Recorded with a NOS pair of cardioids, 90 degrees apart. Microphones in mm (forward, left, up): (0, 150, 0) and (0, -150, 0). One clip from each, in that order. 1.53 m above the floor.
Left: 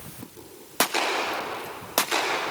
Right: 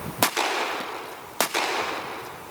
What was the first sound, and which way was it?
Only background noise.